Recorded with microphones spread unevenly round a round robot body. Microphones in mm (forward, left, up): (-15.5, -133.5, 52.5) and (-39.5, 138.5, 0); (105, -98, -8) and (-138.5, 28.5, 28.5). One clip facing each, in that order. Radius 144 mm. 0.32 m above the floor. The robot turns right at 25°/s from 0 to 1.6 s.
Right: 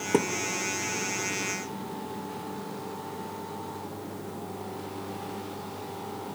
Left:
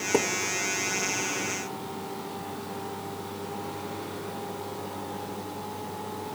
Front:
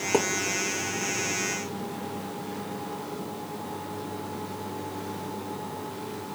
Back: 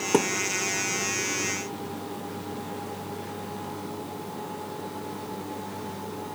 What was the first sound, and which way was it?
A thud, 150° right.